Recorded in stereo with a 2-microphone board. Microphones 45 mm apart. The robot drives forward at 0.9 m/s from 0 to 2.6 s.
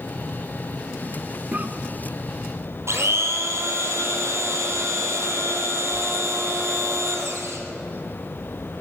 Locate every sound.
1.5 s a cough: 35° right (ahead or behind), 1.2 m; by 1.7 s 40° right (ahead or behind), 1.2 m
2.9 s a blender: 75° right (ahead or behind), 3 m